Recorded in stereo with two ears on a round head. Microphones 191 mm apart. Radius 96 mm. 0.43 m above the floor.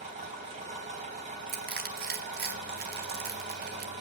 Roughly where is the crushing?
Right.